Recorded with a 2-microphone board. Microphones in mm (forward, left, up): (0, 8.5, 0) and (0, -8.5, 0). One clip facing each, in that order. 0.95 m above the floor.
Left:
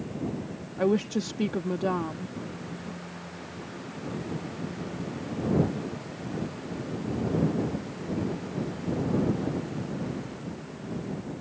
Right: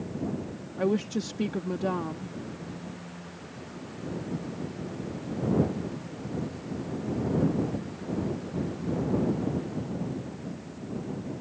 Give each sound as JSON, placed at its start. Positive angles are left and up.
{"t": 0.8, "sound": "a woman speaking", "side_deg": 5}